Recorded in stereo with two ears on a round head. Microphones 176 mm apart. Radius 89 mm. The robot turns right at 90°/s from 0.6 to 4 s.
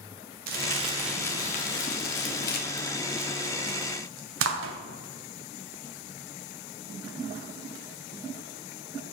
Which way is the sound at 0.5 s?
50° right (ahead or behind).